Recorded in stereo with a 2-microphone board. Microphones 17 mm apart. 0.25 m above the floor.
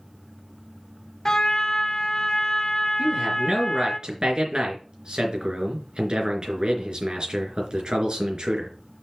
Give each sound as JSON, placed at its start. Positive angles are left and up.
{"t": 1.2, "sound": "a trumpet", "side_deg": 35, "distance_m": 0.8}
{"t": 3.0, "sound": "a man speaking", "side_deg": -55, "distance_m": 3.5}